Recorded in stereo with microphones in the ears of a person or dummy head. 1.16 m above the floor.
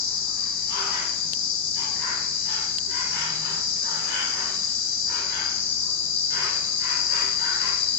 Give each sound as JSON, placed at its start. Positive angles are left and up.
{"t": 0.0, "sound": "an insect", "side_deg": 60, "distance_m": 2.5}